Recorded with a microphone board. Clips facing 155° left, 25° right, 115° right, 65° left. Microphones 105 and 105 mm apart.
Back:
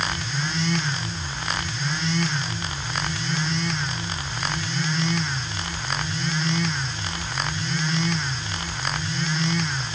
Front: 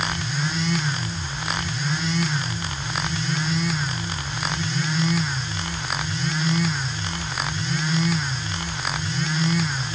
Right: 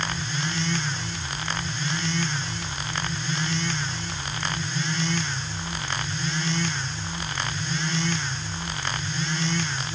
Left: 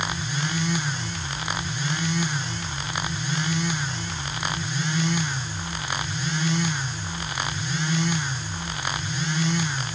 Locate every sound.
Only background noise.